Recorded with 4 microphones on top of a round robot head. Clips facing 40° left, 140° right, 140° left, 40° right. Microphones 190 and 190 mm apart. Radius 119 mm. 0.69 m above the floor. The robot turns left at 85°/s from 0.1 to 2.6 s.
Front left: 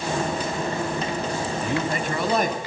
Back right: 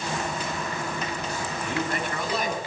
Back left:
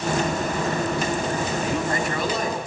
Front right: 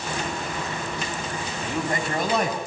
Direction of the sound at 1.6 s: 60° left.